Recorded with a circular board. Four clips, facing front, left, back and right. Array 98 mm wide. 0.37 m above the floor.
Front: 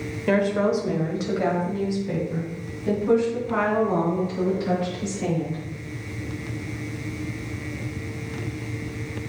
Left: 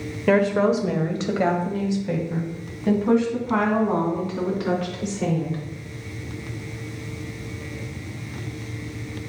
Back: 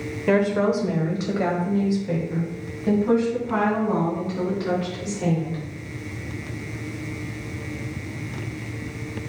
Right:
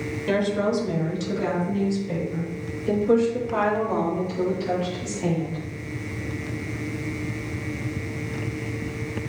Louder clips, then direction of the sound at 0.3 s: Left 5 dB, back 1 dB; 100° left.